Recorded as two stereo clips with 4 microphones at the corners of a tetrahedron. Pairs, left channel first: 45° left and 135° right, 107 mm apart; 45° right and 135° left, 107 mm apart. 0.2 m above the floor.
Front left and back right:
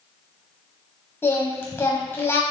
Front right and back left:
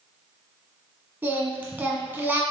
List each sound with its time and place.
1.2 s singing: 85° left, 1.5 m